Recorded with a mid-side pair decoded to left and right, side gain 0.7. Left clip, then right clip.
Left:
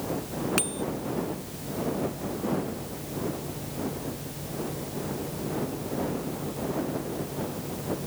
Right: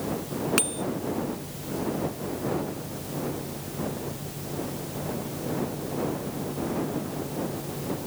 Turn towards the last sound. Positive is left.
turn(degrees=-10)